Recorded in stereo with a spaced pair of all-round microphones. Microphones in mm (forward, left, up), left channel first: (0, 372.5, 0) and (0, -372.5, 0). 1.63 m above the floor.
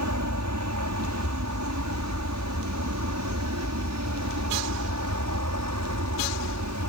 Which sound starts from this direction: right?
An aircraft, at 0.0 s.